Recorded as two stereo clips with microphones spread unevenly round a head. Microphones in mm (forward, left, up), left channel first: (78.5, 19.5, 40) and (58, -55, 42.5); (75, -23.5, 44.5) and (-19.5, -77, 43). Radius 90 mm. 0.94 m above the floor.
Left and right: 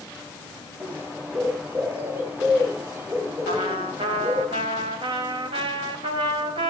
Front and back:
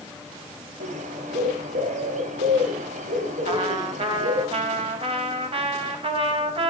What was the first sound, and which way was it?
A bird, 175° right.